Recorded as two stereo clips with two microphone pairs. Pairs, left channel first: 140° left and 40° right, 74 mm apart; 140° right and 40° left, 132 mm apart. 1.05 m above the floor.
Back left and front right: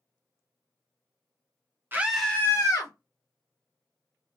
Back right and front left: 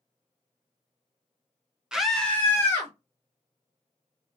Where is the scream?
40° right, 0.7 m; by 2.9 s 150° left, 1.1 m.